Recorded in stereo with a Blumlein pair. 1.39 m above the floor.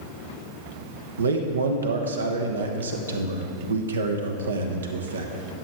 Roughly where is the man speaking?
Right.